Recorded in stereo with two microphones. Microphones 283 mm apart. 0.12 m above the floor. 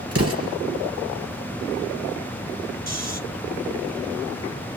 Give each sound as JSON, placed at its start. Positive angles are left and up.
{"t": 0.1, "sound": "an explosion", "side_deg": -55, "distance_m": 3.0}
{"t": 2.9, "sound": "snoring", "side_deg": -65, "distance_m": 2.0}